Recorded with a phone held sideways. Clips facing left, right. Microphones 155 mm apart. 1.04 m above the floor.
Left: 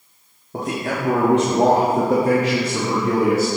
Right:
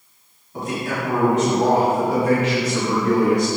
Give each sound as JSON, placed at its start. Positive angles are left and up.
{"t": 0.5, "sound": "a man speaking", "side_deg": 85, "distance_m": 1.8}